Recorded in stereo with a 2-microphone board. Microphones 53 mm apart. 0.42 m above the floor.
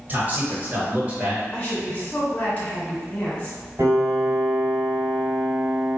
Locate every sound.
0.1 s a man speaking: 35° right (ahead or behind), 1.8 m; by 1.4 s 25° right (ahead or behind), 1.2 m
1.5 s a woman speaking: 30° left (ahead or behind), 1.5 m
3.8 s a piano: 50° right (ahead or behind), 1.7 m